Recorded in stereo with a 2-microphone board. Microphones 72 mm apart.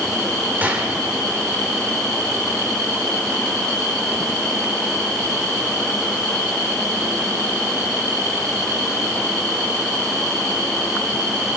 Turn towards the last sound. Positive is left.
turn(degrees=-25)  # may be behind; listen again after turning